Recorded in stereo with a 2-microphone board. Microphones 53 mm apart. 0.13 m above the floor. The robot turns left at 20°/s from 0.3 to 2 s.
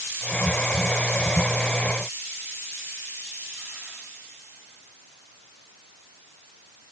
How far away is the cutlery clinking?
I don't hear cutlery clinking.